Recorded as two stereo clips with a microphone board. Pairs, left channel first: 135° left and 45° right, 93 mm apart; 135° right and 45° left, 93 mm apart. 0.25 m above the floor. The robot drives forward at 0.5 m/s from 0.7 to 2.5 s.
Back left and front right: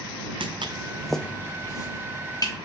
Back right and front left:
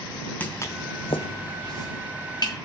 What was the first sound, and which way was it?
Footsteps, 65° right.